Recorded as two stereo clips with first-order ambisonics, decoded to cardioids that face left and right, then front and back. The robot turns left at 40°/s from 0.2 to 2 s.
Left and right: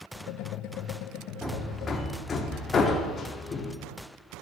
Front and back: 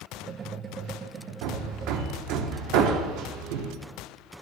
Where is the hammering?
175° right, 0.8 m; by 3.7 s 160° left, 0.8 m.